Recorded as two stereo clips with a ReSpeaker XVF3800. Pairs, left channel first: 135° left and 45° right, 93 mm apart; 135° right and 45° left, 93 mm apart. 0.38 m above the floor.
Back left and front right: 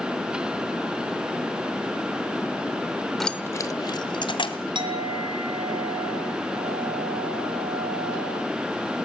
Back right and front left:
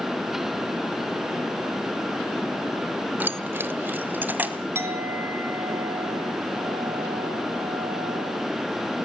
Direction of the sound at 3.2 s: 50° left.